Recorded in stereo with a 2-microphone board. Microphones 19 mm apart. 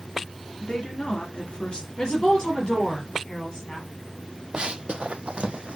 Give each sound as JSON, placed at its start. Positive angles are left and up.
{"t": 0.6, "sound": "a woman speaking", "side_deg": 60, "distance_m": 3.0}
{"t": 2.0, "sound": "a woman speaking", "side_deg": 45, "distance_m": 4.0}
{"t": 4.5, "sound": "running footsteps", "side_deg": -55, "distance_m": 0.6}